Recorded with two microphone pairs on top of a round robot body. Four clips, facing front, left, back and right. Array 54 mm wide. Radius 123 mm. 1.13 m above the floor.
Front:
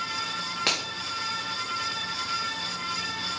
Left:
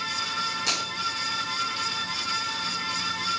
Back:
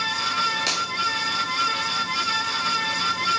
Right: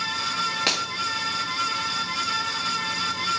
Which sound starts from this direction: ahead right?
A finger snap, at 0.7 s.